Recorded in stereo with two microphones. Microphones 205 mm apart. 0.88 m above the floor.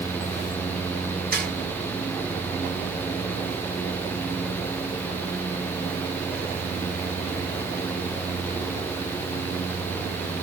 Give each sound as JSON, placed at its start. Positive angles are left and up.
{"t": 1.3, "sound": "a snare drum", "side_deg": 75, "distance_m": 4.5}